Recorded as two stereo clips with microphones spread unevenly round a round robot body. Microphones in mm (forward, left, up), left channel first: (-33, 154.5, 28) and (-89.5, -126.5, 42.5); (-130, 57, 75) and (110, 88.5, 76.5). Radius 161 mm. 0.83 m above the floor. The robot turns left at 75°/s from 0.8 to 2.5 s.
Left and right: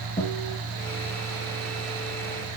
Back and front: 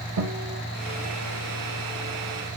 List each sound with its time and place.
0.2 s a guitar: 10° left, 3 m